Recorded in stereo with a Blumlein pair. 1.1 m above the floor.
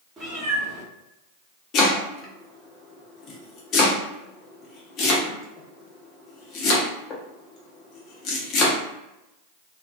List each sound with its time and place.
0.2 s a cat meowing: 20° right, 1.1 m
1.7 s chopping: 35° left, 0.7 m